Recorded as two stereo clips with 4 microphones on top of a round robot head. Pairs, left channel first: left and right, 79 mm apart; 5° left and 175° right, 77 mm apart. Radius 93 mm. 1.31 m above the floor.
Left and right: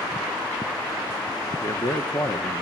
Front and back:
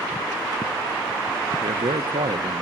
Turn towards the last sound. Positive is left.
turn(degrees=155)